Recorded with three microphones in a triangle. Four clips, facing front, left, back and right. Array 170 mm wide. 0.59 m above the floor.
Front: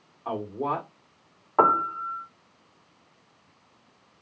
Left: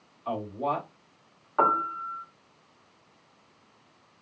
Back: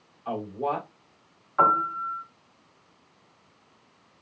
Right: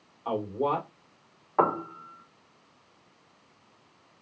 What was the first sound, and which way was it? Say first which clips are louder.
A man speaking: right 2 dB, even; 45° right.